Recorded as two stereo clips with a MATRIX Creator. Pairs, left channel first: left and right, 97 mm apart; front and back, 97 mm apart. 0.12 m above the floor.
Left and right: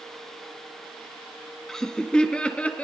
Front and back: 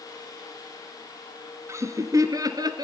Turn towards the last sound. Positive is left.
turn(degrees=160)